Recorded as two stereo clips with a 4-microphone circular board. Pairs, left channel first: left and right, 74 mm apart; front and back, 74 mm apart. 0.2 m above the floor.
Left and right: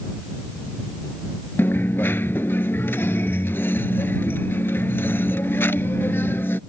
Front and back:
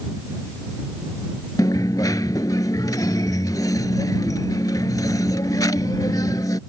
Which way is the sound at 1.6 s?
30° left.